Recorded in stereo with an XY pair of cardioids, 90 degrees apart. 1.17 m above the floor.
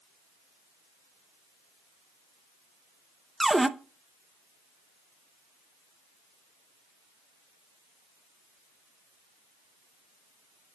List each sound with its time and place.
3.4 s a cupboard door: 10° right, 0.7 m